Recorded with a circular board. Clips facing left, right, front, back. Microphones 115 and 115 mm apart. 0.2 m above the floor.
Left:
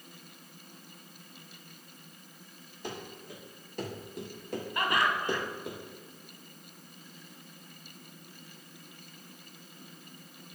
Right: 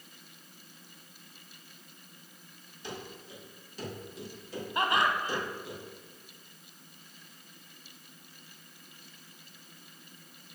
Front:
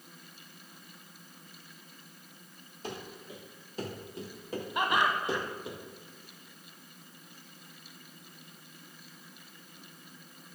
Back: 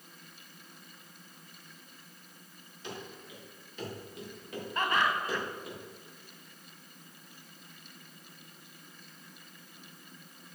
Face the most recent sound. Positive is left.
turn(degrees=-55)